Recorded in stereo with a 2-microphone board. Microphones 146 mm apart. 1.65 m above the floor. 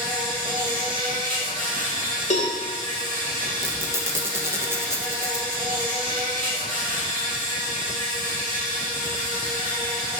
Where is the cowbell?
55° left (ahead or behind), 1.4 m.